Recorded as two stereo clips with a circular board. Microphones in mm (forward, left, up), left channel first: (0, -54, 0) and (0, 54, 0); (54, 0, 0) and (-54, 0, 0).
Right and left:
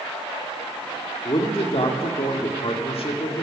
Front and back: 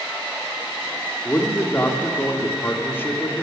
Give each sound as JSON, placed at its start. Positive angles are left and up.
{"t": 1.2, "sound": "a man speaking", "azimuth_deg": -70, "distance_m": 1.7}